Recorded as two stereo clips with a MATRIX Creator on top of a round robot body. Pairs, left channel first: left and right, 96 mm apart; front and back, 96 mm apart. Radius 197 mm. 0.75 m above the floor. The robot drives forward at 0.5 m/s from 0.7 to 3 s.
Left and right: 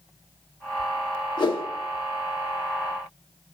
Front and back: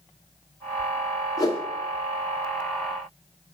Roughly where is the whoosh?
Ahead left.